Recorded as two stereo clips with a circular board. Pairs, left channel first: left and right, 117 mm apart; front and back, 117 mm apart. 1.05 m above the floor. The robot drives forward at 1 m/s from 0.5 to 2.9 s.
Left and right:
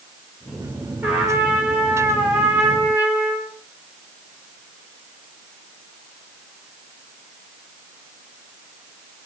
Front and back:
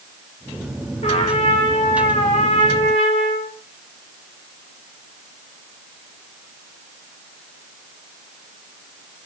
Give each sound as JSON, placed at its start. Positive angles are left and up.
{"t": 1.0, "sound": "a trumpet", "azimuth_deg": -10, "distance_m": 5.5}